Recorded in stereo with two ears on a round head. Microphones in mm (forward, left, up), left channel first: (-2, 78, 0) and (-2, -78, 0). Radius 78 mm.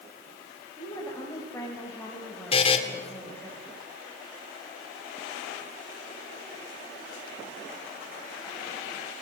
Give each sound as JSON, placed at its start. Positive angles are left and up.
{"t": 0.8, "sound": "a woman speaking", "side_deg": 15, "distance_m": 6.5}
{"t": 2.5, "sound": "a buzzer", "side_deg": 35, "distance_m": 2.0}